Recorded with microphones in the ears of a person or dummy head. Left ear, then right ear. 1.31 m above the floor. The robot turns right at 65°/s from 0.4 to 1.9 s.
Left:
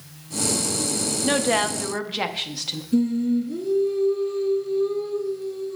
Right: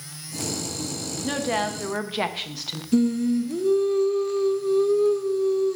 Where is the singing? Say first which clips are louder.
Right 1 dB; 50° right (ahead or behind), 0.7 m.